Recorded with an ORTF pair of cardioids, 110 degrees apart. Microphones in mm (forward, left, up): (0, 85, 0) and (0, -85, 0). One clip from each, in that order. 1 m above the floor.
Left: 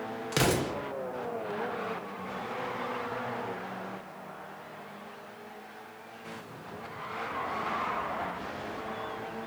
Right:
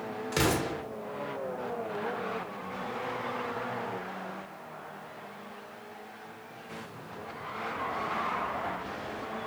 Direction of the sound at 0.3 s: 20° left.